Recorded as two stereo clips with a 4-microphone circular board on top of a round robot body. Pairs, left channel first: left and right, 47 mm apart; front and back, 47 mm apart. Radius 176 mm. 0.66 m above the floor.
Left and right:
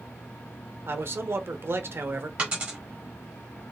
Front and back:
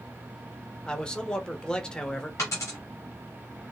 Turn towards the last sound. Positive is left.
turn(degrees=-35)